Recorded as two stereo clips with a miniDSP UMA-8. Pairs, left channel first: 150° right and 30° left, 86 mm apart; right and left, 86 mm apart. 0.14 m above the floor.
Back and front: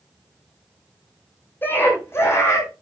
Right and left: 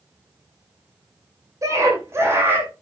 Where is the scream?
145° left, 7.5 m; by 2.7 s 155° left, 7 m.